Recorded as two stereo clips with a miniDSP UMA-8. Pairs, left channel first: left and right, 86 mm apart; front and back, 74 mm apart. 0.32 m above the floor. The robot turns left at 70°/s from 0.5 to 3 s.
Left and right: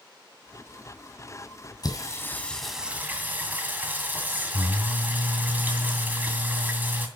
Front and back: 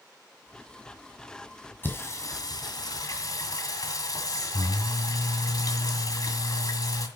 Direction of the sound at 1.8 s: 60° left.